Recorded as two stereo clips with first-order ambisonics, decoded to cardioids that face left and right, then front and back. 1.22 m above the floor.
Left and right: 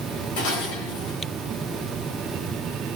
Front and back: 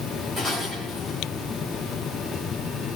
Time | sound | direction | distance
0.4 | dishes clattering | 95° left | 3.5 m